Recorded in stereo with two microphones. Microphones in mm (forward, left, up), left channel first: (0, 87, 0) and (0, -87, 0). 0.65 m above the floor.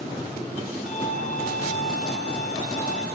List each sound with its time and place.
0.9 s a violin: 45° left (ahead or behind), 3 m